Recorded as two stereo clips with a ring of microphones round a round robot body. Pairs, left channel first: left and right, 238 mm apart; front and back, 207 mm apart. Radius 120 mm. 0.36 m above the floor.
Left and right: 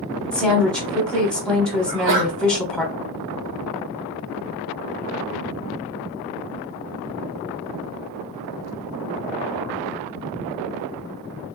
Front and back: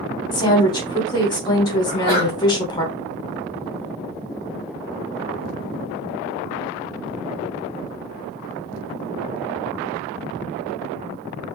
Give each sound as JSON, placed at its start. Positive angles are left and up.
{"t": 0.3, "sound": "a woman speaking", "azimuth_deg": 10, "distance_m": 1.1}
{"t": 1.9, "sound": "a sneeze", "azimuth_deg": -115, "distance_m": 1.8}